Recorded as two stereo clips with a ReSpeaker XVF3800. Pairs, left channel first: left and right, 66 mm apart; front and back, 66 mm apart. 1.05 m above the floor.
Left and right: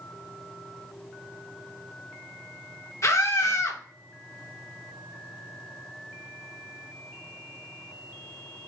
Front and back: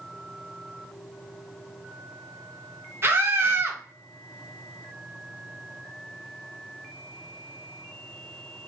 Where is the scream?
130° left, 1.1 m.